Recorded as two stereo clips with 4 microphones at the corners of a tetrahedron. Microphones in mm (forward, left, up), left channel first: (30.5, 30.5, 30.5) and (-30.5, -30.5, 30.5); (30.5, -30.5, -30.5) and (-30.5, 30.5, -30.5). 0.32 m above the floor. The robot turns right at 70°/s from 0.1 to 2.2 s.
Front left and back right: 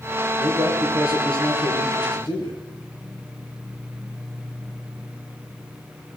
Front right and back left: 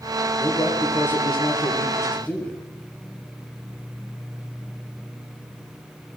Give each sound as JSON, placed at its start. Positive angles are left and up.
{"t": 0.4, "sound": "a man speaking", "azimuth_deg": -100, "distance_m": 8.0}